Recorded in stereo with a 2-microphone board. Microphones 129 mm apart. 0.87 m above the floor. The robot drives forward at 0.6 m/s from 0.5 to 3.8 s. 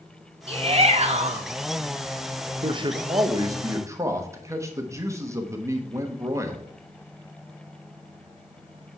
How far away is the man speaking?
About 0.6 m.